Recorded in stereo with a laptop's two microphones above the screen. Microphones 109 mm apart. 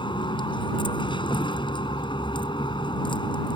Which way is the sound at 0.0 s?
50° left (ahead or behind).